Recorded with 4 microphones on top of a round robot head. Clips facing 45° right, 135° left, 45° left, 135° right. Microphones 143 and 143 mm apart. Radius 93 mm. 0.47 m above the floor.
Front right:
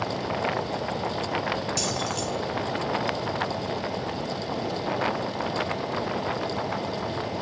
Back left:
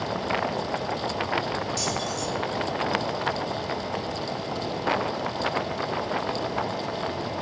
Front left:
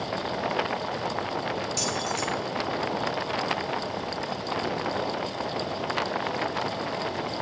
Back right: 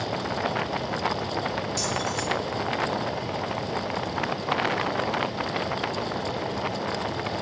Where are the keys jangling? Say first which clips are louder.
Even, back right 1 dB; 25° right, 4 m.